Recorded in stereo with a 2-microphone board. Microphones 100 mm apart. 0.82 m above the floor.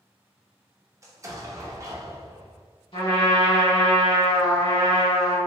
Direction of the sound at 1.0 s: 30° right (ahead or behind).